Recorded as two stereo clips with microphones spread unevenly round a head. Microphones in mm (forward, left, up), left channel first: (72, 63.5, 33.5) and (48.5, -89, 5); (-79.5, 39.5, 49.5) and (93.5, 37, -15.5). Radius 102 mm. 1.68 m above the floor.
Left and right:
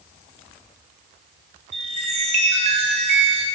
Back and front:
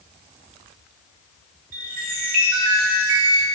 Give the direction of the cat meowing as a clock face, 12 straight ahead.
I don't hear a cat meowing.